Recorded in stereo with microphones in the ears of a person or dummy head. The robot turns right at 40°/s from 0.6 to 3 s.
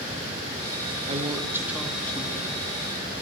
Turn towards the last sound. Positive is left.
turn(degrees=45)